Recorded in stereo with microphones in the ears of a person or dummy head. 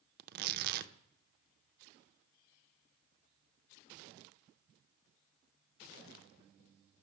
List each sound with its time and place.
0.2 s tearing paper: 50° right (ahead or behind), 0.5 m